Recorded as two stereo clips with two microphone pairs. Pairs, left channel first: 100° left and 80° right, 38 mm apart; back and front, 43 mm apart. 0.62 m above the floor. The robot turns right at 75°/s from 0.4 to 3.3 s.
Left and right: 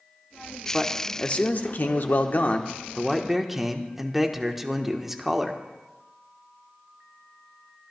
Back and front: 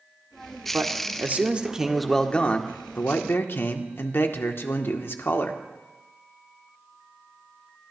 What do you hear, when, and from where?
0.7 s a man speaking: 5° left, 1.2 m; by 5.6 s 165° right, 1.2 m